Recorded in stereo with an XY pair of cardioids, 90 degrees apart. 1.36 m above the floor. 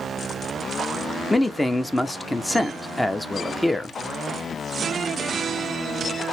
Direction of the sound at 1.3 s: 15° left.